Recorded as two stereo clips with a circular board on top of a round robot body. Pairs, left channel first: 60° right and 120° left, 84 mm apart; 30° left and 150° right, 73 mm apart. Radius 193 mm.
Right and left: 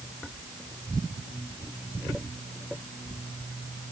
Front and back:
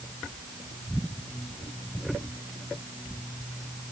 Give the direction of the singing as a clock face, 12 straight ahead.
No singing in this recording.